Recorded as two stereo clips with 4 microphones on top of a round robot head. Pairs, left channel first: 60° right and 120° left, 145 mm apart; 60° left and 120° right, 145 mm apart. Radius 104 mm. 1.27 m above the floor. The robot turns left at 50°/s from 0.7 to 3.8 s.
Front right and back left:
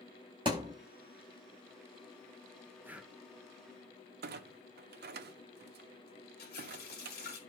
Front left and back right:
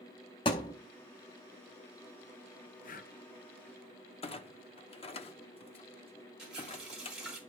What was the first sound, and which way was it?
A thud, 90° left.